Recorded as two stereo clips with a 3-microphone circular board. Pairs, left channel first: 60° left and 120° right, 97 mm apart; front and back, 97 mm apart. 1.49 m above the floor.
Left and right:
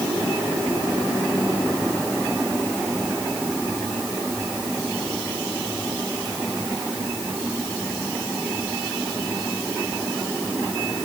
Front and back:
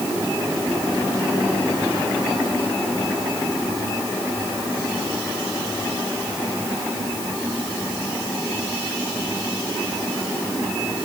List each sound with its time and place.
Only background noise.